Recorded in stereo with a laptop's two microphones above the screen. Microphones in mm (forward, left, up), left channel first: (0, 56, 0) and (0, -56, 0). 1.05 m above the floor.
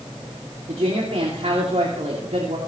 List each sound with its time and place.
0.7 s a woman speaking: 80° right, 2.5 m